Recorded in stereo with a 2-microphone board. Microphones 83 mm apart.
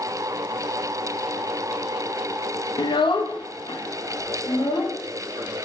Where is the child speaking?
70° left (ahead or behind), 0.5 m; by 5.6 s 65° left (ahead or behind), 1.9 m.